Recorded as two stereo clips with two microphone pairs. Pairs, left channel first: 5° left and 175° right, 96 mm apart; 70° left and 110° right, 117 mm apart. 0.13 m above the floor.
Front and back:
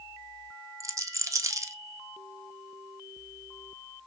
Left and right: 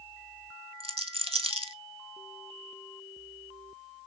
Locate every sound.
0.8 s a rattle: 125° right, 0.5 m